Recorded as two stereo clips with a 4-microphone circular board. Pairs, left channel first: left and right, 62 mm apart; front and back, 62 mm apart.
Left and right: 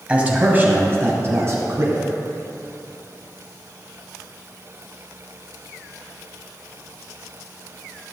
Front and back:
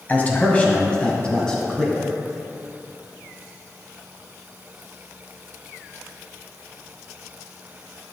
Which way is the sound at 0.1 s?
35° right.